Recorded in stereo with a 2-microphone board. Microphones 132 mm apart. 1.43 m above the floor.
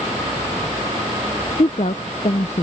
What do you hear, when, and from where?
1.6 s a woman speaking: 60° left (ahead or behind)